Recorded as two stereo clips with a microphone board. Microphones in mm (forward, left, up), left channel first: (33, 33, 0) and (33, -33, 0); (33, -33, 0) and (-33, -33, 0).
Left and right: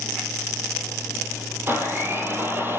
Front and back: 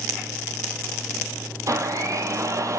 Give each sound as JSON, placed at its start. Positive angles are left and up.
{"t": 1.7, "sound": "a blender", "azimuth_deg": -145, "distance_m": 4.0}